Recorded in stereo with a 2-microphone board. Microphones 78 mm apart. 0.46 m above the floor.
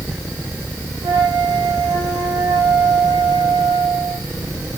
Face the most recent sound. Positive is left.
turn(degrees=-80)